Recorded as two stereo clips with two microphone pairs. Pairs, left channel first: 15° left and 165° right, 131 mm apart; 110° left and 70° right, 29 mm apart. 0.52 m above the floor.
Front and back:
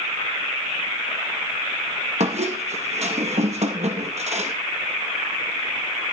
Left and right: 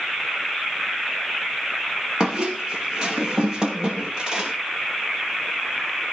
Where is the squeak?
135° right, 2.5 m.